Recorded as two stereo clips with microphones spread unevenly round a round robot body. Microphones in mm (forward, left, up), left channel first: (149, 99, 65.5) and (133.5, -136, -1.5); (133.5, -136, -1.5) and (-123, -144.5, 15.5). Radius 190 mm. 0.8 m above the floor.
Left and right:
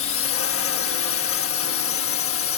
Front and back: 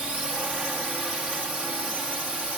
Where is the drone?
95° left.